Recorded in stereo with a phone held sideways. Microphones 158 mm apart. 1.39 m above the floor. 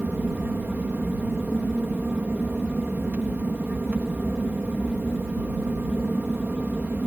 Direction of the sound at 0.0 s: 10° right (ahead or behind).